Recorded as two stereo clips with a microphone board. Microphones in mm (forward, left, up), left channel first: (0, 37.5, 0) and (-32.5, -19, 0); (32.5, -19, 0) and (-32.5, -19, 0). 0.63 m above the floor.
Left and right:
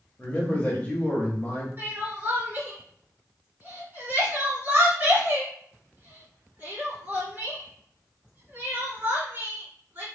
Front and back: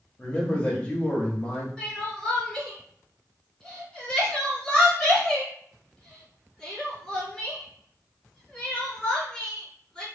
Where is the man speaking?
35° left, 1.0 m.